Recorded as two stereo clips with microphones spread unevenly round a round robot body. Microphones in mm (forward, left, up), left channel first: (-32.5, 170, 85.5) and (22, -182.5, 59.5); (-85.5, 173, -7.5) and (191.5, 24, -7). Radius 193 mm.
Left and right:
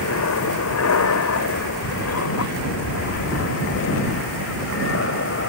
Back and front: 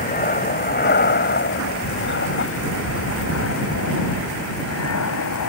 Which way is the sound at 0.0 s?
105° left.